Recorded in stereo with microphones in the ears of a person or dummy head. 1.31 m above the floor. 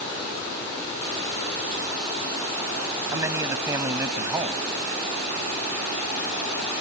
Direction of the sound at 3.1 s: 15° right (ahead or behind).